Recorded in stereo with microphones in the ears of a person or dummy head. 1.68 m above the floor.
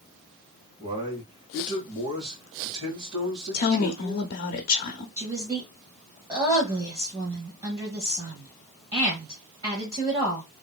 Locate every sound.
0.8 s a man speaking: 25° right (ahead or behind), 1.7 m
3.5 s a woman speaking: 45° left (ahead or behind), 0.6 m
5.2 s a woman speaking: 20° right (ahead or behind), 1.1 m